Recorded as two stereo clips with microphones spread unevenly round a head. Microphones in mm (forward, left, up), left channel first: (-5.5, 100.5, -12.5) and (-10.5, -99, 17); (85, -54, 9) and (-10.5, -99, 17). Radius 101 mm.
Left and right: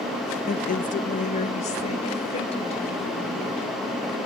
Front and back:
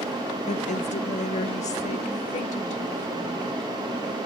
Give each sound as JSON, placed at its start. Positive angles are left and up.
{"t": 0.5, "sound": "a woman speaking", "azimuth_deg": 40, "distance_m": 0.8}